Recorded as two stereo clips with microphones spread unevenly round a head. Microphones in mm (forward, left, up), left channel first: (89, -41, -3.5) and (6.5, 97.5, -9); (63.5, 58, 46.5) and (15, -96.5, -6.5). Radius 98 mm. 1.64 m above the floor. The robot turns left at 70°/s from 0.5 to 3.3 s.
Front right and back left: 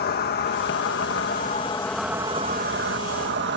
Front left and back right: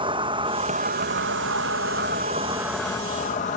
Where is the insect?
45° right; by 3.6 s 120° left.